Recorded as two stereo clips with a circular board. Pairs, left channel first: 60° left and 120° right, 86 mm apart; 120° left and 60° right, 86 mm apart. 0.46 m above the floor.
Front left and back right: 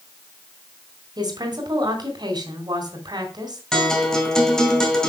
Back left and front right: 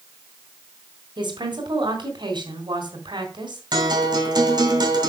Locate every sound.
1.2 s a woman speaking: 85° right, 3 m
3.7 s a guitar: 25° right, 2.5 m